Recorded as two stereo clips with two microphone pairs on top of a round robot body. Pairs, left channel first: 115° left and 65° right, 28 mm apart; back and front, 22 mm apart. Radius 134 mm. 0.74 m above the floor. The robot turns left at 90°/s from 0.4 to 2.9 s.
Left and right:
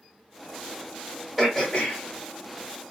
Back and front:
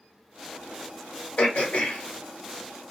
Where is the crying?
I don't hear crying.